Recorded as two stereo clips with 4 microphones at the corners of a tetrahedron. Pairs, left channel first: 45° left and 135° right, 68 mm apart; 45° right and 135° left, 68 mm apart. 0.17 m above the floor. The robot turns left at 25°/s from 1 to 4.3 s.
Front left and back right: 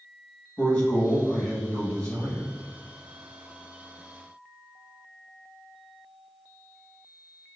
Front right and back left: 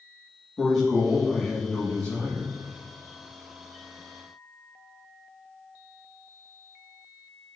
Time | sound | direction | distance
0.6 | a man speaking | 30° left | 1.0 m